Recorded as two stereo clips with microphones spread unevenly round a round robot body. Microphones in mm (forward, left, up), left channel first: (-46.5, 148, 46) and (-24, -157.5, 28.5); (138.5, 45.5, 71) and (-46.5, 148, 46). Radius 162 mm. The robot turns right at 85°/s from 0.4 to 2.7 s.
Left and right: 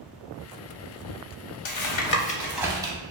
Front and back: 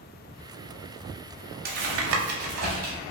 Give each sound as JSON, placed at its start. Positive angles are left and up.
{"t": 1.6, "sound": "tapping", "azimuth_deg": 105, "distance_m": 0.7}